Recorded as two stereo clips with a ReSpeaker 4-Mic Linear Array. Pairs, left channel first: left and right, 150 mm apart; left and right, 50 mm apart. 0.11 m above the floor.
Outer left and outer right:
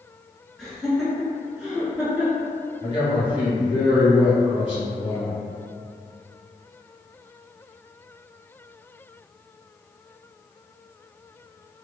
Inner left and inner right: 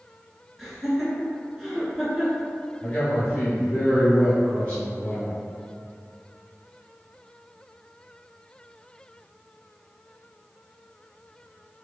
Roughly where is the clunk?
I don't hear a clunk.